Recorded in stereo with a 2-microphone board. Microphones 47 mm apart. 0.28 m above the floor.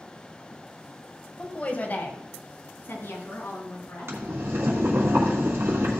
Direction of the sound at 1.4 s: 20° left (ahead or behind).